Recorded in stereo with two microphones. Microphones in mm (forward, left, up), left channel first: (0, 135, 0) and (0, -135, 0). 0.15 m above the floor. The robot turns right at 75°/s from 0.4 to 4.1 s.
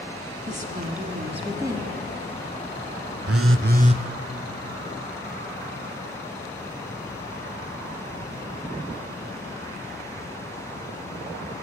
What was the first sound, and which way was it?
A woman speaking, 25° right (ahead or behind).